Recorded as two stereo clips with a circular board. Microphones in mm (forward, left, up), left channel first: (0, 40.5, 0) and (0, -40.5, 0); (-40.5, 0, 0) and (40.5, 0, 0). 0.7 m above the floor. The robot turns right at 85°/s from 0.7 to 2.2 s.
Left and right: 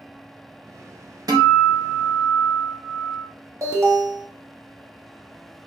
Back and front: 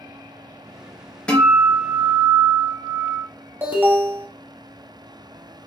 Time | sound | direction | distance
1.3 | a guitar | 105° right | 0.7 m
3.6 | an alarm | 60° right | 0.7 m